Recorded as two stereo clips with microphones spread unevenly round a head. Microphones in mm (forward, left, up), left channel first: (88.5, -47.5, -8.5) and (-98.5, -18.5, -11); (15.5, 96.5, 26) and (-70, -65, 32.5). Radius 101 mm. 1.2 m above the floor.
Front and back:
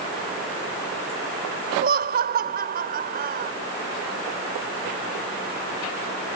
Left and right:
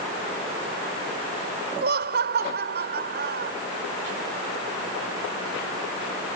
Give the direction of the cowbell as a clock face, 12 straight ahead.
No cowbell in this recording.